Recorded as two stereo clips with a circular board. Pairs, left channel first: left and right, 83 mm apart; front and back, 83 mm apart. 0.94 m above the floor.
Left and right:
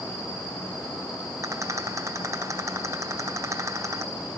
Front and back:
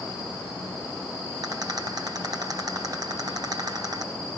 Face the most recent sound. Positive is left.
turn(degrees=-145)